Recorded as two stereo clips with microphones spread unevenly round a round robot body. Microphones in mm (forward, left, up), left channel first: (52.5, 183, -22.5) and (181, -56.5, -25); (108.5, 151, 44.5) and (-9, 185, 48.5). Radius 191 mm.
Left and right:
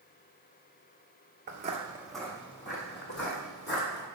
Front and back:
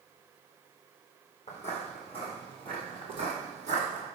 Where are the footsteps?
55° right, 1.0 m; by 4.0 s 160° left, 2.5 m.